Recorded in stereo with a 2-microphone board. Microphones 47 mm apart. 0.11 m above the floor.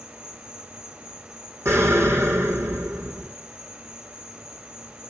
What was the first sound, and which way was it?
An insect, 15° right (ahead or behind).